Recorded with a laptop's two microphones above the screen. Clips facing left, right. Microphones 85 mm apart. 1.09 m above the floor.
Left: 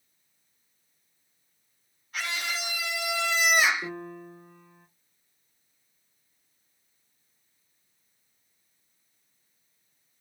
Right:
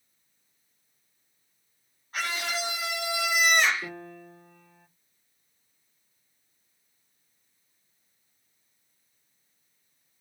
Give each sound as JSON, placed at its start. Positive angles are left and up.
{"t": 2.1, "sound": "a scream", "side_deg": -40, "distance_m": 1.1}
{"t": 3.8, "sound": "a piano", "side_deg": 5, "distance_m": 2.0}